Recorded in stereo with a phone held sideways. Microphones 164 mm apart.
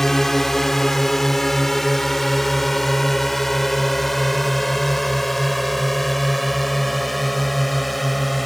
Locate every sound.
0.0 s a drone: centre (ahead or behind)